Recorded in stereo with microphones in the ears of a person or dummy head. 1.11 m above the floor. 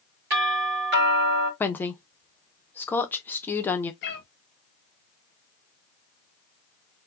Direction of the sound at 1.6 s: 10° left (ahead or behind).